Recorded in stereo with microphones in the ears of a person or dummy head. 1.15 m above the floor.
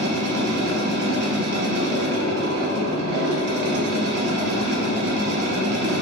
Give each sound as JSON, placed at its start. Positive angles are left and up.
{"t": 0.0, "sound": "a machine running", "side_deg": -65, "distance_m": 0.7}